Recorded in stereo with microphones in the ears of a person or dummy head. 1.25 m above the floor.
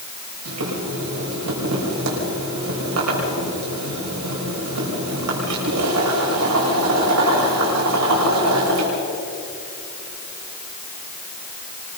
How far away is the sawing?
I don't hear sawing.